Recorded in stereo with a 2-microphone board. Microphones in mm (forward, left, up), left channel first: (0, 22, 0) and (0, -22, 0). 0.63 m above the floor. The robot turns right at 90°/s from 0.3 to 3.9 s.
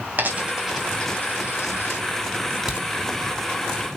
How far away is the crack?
About 3 m.